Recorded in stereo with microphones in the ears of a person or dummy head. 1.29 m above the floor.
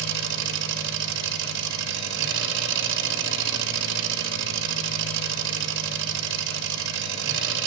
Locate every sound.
0.0 s an engine running: 70° right (ahead or behind), 1.8 m